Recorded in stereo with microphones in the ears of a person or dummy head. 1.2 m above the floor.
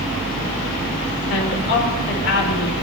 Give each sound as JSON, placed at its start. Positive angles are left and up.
{"t": 1.3, "sound": "a woman speaking", "side_deg": 65, "distance_m": 4.5}